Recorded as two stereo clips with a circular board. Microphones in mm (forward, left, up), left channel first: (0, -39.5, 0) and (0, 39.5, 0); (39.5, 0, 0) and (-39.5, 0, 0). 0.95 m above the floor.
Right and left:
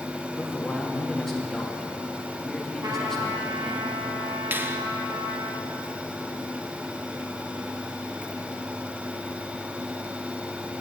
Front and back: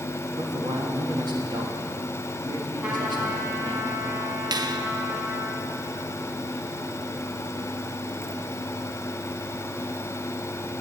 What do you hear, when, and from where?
0.4 s a man speaking: 175° right, 1.7 m
2.8 s a trumpet: 105° left, 2 m
4.5 s a finger snap: 155° left, 0.5 m